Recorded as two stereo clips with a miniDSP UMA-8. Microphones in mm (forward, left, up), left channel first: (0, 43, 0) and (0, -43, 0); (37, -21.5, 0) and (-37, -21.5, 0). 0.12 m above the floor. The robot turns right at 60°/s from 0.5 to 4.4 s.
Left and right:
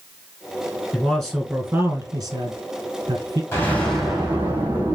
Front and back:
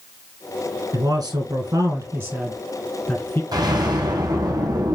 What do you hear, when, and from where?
0.9 s a man speaking: 165° left, 2.5 m; by 3.4 s 50° right, 2.5 m
3.5 s an explosion: 150° left, 2 m; by 5.0 s 160° right, 2 m